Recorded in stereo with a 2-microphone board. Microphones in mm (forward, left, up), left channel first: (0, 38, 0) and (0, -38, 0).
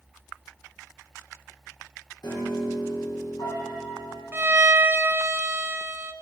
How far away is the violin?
About 0.8 m.